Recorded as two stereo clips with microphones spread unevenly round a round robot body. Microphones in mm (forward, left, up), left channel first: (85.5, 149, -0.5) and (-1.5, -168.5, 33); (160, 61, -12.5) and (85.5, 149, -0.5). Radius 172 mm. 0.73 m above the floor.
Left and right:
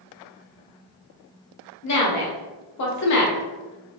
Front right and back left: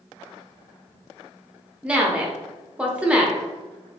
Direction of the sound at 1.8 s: 45° left.